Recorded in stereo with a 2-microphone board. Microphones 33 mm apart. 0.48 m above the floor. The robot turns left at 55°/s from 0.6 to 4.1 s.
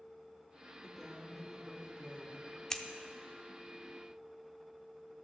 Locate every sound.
0.8 s a woman speaking: 25° left, 1.4 m; by 2.6 s 70° right, 1.4 m
2.7 s scissors: 20° left (ahead or behind), 0.7 m; by 2.8 s 25° left (ahead or behind), 0.7 m